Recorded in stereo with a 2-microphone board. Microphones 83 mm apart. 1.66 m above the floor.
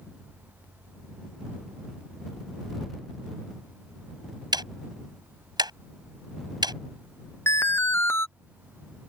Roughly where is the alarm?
Left.